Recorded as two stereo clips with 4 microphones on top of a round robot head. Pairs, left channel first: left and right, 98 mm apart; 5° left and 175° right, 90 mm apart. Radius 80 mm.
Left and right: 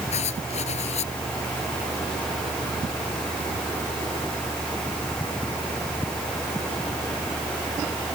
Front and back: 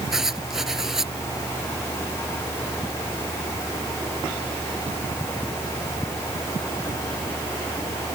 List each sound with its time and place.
0.1 s writing: 95° left